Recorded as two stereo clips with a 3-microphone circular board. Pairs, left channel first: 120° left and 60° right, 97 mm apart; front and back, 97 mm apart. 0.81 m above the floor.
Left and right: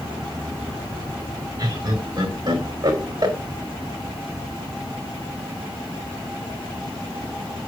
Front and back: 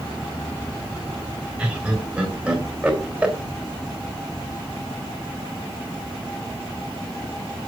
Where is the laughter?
100° right, 4.5 m.